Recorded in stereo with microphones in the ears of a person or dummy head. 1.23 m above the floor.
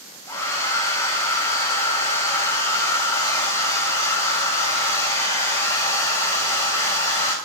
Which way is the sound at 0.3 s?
15° left (ahead or behind).